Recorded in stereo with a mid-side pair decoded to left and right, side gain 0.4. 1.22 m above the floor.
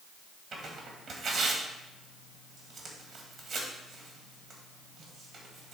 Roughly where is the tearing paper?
Right.